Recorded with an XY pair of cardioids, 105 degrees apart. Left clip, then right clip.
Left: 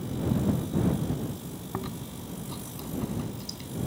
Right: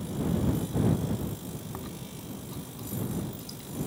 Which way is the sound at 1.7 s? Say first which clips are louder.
Left 4 dB; 40° left.